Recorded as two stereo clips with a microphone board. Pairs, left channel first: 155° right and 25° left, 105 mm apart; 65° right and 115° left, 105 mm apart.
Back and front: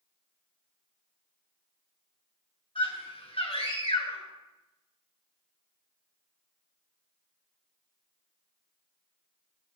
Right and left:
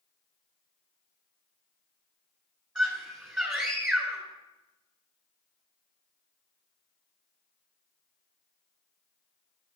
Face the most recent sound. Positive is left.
turn(degrees=-165)